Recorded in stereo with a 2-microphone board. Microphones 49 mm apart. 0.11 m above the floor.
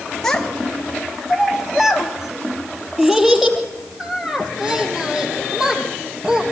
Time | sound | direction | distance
0.2 | a child speaking | 10° left (ahead or behind) | 1.5 m